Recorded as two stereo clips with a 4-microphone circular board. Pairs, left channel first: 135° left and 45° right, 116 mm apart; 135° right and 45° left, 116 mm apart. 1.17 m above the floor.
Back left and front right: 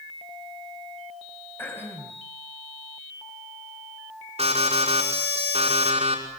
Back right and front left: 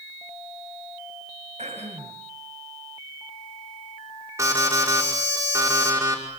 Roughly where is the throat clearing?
Ahead left.